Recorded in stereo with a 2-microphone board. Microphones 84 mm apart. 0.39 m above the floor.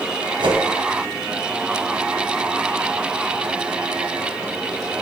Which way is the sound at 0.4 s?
70° right (ahead or behind).